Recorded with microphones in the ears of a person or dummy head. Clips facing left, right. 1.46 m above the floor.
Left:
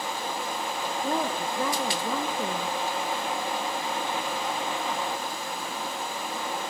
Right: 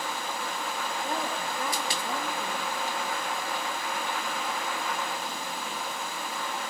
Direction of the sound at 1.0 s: 60° left (ahead or behind).